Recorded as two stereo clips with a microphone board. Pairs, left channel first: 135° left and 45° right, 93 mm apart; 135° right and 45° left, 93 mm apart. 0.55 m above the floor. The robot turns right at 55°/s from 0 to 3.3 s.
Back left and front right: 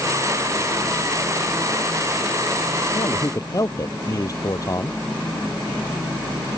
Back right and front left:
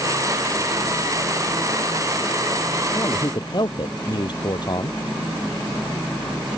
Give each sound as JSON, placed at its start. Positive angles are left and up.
{"t": 3.0, "sound": "a man speaking", "azimuth_deg": 165}